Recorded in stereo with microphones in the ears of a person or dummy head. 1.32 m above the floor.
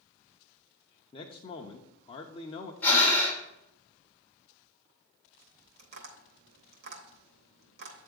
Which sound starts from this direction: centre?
Breathing, at 2.8 s.